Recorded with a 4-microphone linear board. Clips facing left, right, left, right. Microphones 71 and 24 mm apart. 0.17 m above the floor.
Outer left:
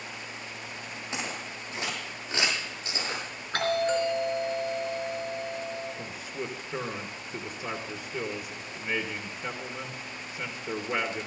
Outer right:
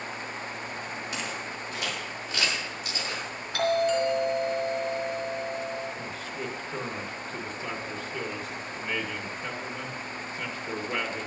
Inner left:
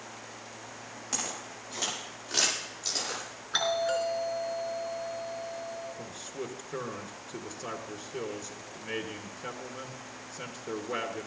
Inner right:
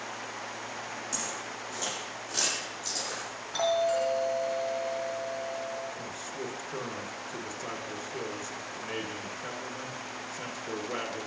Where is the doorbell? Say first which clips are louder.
Outer right 2 dB, inner right 1 dB; 50° left (ahead or behind), 4 m.